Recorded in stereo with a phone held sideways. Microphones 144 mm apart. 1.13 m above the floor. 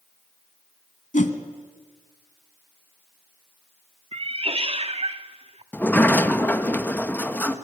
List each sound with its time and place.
1.1 s a whoosh: 65° left (ahead or behind), 1.9 m
4.1 s a cat meowing: 45° right (ahead or behind), 0.9 m
5.7 s a sliding door: 15° left (ahead or behind), 1.4 m